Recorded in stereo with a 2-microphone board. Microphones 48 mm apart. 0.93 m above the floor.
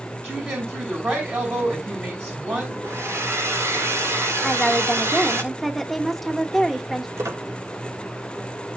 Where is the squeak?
90° right, 2.5 m.